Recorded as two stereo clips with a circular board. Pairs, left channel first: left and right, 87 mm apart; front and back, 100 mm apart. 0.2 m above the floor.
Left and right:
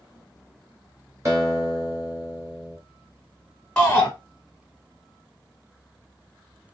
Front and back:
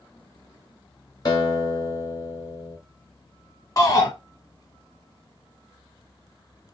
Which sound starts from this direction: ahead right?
A guitar, at 1.2 s.